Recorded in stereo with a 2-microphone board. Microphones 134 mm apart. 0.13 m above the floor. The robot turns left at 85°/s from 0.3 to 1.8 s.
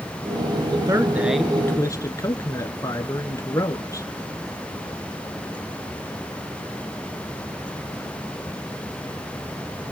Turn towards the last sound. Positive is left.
turn(degrees=145)